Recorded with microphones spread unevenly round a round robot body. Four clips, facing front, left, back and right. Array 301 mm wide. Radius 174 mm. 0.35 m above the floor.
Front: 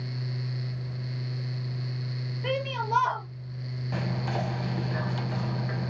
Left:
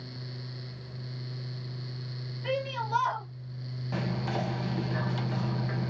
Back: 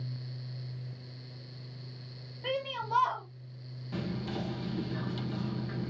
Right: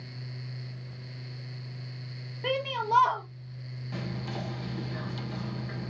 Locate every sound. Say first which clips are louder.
2.4 s a shout: right 2 dB, front 4 dB; 60° right, 4 m
3.9 s whispering: left 5 dB, front 4 dB; 30° left, 1.8 m